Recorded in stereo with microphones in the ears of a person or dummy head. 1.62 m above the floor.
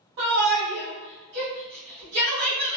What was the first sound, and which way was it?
A shout, 70° right (ahead or behind).